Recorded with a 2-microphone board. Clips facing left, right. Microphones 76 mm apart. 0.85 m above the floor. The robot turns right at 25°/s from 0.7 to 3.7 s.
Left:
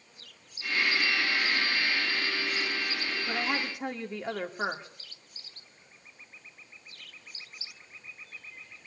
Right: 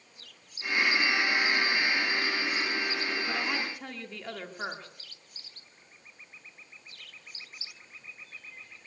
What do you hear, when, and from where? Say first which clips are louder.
3.3 s a woman speaking: left 1 dB; 10° left (ahead or behind), 2 m; by 5.0 s 20° left (ahead or behind), 2 m